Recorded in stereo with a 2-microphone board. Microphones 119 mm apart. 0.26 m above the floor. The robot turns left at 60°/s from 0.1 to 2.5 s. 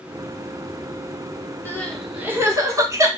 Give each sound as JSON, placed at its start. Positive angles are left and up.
{"t": 1.6, "sound": "crying", "side_deg": 20, "distance_m": 0.6}